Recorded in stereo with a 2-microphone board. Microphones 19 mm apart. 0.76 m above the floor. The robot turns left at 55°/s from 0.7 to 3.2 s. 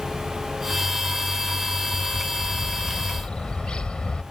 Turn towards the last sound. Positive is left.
turn(degrees=55)